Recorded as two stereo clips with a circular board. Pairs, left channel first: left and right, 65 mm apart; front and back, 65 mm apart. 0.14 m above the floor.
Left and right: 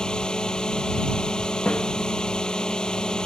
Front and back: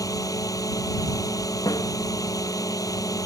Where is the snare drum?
15° left.